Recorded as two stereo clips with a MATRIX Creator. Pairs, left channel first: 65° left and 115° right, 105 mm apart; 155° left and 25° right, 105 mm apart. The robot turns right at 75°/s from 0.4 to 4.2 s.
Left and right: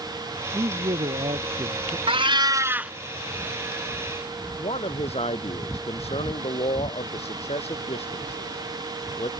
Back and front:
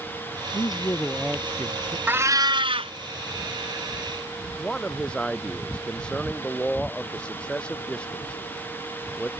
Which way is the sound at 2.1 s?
95° right.